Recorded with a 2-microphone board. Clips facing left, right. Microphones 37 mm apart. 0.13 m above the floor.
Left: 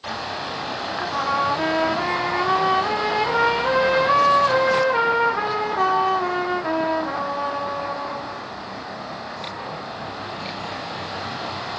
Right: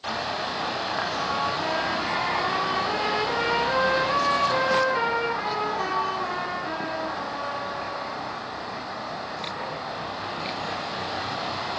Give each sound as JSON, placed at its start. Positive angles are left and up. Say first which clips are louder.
{"t": 1.0, "sound": "a trumpet", "louder": "left 7 dB", "side_deg": 55, "distance_m": 2.5}